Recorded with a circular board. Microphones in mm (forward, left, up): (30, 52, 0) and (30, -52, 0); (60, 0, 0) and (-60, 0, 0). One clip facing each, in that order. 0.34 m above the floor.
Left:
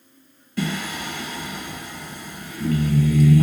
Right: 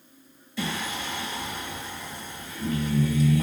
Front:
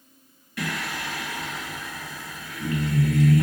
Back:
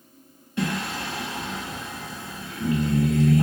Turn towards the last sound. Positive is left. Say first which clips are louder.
# left 4 dB, back 4 dB
turn(degrees=115)